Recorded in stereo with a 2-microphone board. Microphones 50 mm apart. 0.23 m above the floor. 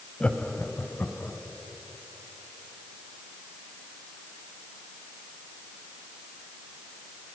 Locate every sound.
0.2 s laughter: 25° left (ahead or behind), 1.3 m; by 1.4 s 55° left (ahead or behind), 2 m